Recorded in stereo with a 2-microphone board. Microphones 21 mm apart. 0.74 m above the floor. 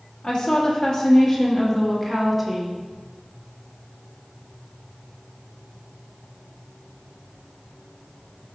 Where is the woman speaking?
50° left (ahead or behind), 1.7 m; by 2.8 s 5° right (ahead or behind), 1.5 m.